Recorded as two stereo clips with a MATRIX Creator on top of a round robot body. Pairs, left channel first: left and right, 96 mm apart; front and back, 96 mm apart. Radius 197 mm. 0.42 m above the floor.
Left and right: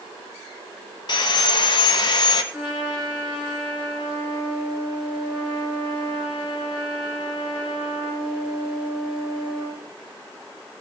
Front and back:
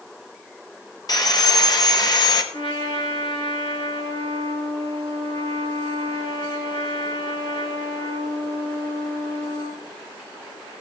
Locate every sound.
1.1 s sawing: 50° left, 1.0 m
2.5 s a trumpet: 15° right, 4.5 m